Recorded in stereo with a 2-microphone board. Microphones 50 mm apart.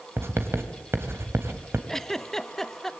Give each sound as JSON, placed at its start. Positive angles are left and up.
{"t": 0.2, "sound": "writing", "side_deg": -60, "distance_m": 2.5}
{"t": 1.9, "sound": "a giggle", "side_deg": 10, "distance_m": 0.8}